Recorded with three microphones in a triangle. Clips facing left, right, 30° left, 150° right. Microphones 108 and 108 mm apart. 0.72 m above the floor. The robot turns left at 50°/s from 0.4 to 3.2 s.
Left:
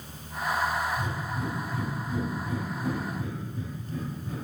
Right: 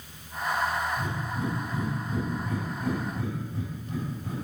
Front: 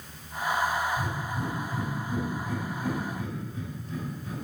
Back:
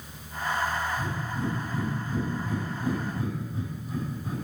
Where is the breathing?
20° left, 5.5 m; by 4.5 s 90° right, 5.5 m.